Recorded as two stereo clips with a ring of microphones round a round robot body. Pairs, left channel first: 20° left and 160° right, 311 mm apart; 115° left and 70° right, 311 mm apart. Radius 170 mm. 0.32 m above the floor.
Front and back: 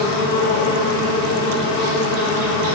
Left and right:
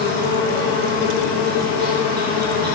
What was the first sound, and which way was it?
An insect, 130° right.